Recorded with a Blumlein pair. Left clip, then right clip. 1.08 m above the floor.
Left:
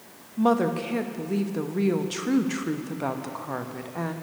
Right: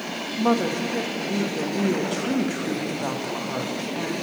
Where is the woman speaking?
5° left, 1.1 m.